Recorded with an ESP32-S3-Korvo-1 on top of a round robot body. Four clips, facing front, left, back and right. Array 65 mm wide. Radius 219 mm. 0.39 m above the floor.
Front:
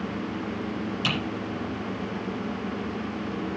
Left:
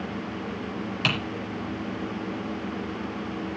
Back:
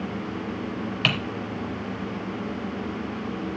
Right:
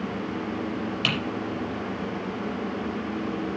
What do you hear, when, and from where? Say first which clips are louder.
1.0 s typing on a keyboard: left 2 dB, back 4 dB; 170° left, 4.5 m